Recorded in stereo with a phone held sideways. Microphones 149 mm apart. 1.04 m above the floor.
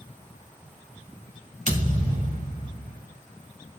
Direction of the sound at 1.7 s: 60° right (ahead or behind).